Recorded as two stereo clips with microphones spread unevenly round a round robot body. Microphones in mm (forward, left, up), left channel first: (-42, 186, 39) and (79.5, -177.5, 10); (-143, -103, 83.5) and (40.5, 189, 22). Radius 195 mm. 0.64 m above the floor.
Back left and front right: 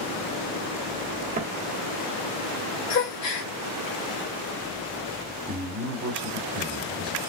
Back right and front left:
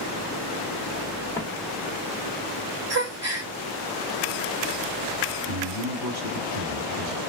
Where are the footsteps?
100° right, 0.6 m.